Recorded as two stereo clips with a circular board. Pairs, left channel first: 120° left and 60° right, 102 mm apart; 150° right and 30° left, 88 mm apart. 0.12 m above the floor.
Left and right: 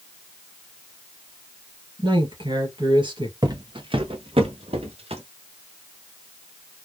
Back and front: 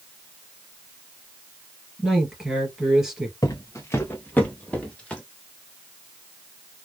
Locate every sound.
2.0 s a man speaking: 55° right, 2.5 m
3.4 s footsteps: 110° right, 0.7 m; by 5.2 s 70° right, 1.6 m